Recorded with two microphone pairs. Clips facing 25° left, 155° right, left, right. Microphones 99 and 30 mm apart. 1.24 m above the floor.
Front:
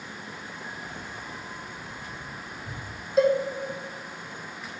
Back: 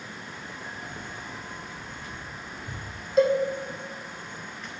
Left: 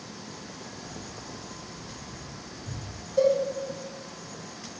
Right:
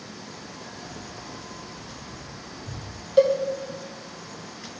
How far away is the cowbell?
About 1.0 m.